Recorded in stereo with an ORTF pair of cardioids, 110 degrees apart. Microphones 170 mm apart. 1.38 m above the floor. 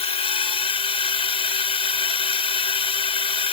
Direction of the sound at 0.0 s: 35° left.